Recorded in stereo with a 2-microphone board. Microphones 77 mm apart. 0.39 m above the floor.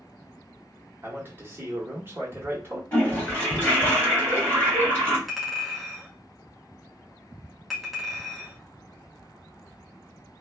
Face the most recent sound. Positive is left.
turn(degrees=0)  # may be behind; listen again after turning